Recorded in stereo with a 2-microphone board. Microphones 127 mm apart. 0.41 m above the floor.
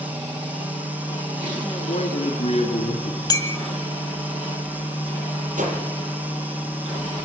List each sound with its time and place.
1.9 s a man speaking: 65° left (ahead or behind), 2.5 m; by 3.2 s 50° left (ahead or behind), 2 m
3.3 s a clink: 30° left (ahead or behind), 2.0 m
5.6 s a whoosh: 85° right, 6.5 m